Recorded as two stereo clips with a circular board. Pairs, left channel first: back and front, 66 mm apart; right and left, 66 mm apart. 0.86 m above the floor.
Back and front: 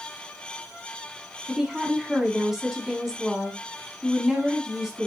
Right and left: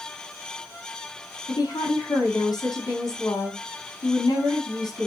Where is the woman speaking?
90° right, 6 m.